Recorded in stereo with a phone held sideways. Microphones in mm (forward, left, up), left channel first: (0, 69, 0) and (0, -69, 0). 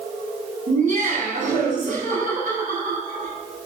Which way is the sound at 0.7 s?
60° right (ahead or behind).